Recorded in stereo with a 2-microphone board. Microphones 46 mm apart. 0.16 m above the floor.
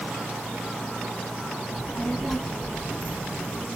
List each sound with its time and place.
1.7 s a child speaking: 35° left (ahead or behind), 0.9 m; by 3.7 s 45° right (ahead or behind), 1.1 m